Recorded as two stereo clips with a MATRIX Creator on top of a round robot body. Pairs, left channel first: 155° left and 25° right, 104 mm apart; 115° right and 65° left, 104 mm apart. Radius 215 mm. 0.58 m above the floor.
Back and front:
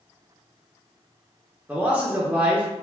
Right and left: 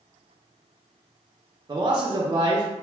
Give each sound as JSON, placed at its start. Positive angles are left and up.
{"t": 1.7, "sound": "a man speaking", "azimuth_deg": 45, "distance_m": 0.7}